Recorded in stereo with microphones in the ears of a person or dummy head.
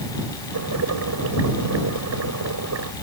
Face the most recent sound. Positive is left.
turn(degrees=-80)